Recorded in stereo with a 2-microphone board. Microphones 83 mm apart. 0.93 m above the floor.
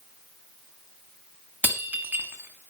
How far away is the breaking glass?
About 1.9 m.